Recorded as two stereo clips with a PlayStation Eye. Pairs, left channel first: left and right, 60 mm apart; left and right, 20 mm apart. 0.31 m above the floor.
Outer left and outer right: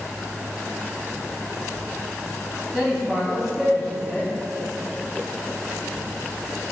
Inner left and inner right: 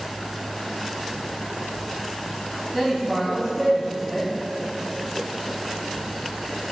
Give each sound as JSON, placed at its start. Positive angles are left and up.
{"t": 2.7, "sound": "a man speaking", "side_deg": -10, "distance_m": 1.9}